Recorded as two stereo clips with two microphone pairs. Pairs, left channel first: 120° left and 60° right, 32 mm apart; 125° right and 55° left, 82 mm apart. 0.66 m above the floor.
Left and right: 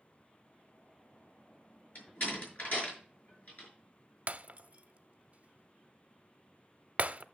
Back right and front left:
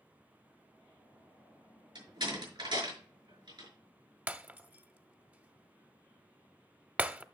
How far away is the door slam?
About 6 m.